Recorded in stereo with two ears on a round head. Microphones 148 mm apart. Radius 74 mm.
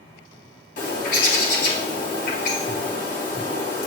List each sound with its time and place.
0.8 s a bird: 55° left (ahead or behind), 3.5 m